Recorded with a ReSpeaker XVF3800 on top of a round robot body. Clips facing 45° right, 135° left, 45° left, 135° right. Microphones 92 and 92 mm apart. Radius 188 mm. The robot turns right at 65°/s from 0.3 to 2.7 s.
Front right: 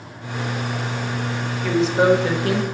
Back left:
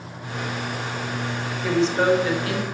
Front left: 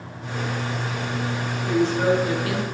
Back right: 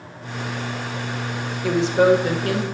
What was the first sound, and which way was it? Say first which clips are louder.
A woman speaking: front right 3 dB, back right 4 dB; 145° right.